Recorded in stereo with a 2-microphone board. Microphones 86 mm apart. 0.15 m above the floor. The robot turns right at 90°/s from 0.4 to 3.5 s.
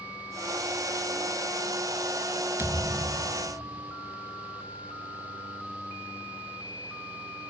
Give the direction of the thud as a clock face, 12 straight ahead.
5 o'clock.